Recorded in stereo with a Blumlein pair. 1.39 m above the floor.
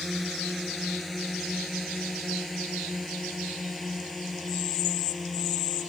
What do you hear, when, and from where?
0.0 s a drone: straight ahead; by 5.9 s 10° left